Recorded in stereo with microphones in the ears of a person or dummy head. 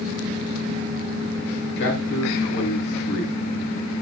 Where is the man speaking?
70° left (ahead or behind), 6.5 m.